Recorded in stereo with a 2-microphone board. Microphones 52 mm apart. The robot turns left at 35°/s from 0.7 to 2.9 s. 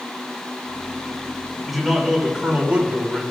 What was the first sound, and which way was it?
A man speaking, straight ahead.